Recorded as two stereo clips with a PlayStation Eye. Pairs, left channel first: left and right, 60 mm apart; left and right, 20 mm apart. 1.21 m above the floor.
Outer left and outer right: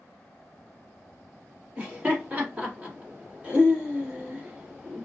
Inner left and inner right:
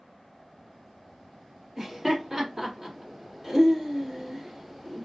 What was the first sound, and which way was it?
Laughter, 25° right (ahead or behind).